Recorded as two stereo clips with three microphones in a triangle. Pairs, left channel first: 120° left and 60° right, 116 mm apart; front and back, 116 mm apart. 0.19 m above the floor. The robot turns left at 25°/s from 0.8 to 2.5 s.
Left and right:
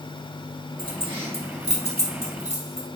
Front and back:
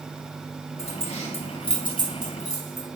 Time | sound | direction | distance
0.8 | keys jangling | 15° right | 2 m